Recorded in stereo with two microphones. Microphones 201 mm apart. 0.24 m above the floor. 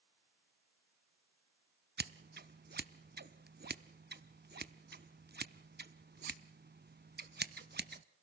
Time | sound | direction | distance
2.0 | scissors | 55° right (ahead or behind) | 0.8 m